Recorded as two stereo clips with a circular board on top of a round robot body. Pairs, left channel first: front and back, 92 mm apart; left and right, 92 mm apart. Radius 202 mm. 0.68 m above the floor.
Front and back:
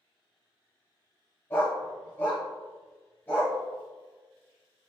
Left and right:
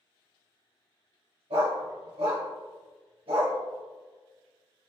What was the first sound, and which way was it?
A dog barking, 70° right.